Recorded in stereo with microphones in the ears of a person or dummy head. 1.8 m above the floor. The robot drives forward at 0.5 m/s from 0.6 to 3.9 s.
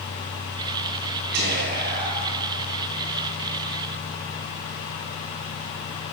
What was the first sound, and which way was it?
Whispering, 50° right (ahead or behind).